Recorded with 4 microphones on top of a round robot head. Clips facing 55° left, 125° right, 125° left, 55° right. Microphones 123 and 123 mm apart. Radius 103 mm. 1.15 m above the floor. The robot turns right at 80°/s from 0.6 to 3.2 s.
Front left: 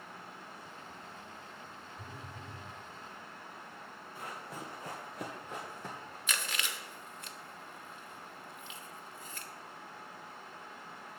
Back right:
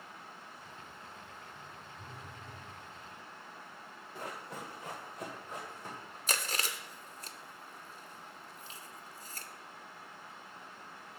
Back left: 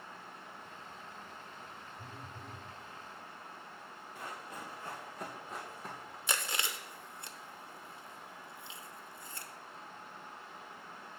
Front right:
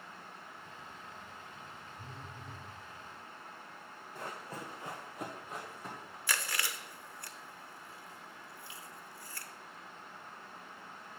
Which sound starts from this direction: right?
Running footsteps, at 4.2 s.